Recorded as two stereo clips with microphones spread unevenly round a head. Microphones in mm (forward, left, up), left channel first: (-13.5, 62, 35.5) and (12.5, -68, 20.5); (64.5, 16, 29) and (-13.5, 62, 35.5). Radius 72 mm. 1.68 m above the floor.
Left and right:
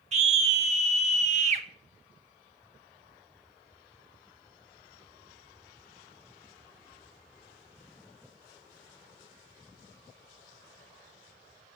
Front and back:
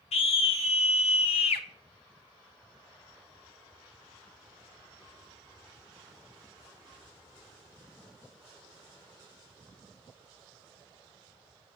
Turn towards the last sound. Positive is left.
turn(degrees=-40)